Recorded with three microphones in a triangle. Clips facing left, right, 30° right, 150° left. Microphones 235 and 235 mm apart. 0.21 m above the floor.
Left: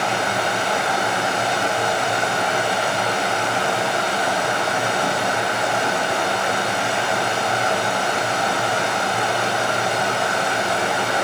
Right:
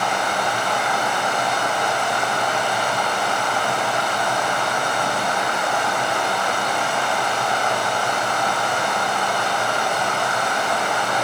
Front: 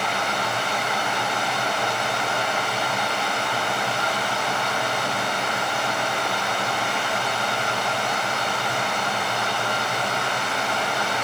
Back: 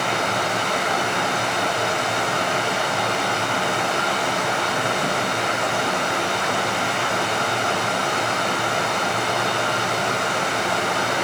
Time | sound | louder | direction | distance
0.0 | running water | left 1 dB, back 4 dB | 155° left | 4 m